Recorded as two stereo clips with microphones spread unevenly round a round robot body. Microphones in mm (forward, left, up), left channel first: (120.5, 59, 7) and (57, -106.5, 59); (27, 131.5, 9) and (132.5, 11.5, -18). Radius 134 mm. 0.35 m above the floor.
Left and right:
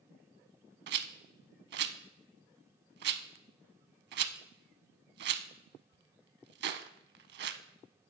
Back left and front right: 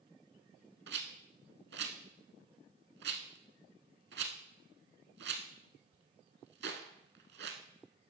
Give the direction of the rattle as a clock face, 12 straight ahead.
3 o'clock.